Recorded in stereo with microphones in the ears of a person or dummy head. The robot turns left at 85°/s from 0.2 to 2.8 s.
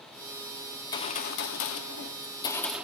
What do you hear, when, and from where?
0.8 s a gunshot: 165° left, 1.5 m; by 2.9 s 10° right, 1.5 m